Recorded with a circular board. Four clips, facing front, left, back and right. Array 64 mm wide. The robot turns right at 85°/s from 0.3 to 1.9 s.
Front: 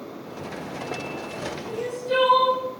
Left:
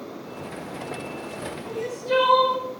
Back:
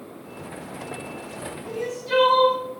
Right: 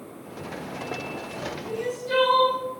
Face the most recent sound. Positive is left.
turn(degrees=145)